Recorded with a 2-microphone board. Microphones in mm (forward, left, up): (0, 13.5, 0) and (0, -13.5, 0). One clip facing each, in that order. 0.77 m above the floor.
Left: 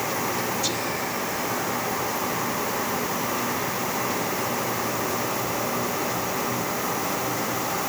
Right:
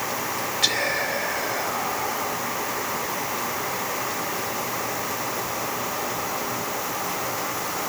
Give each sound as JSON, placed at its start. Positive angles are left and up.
{"t": 0.6, "sound": "whispering", "side_deg": -65, "distance_m": 4.0}